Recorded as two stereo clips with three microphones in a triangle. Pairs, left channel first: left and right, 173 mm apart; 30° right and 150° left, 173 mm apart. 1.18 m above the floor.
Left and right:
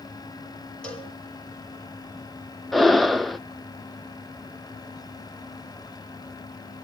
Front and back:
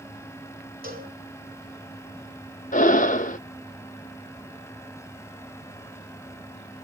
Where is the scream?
I don't hear a scream.